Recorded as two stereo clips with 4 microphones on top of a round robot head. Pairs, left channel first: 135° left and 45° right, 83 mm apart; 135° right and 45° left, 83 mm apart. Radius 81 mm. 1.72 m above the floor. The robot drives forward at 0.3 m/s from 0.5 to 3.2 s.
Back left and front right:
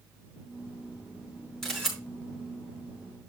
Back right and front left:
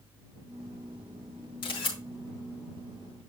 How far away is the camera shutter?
About 5 m.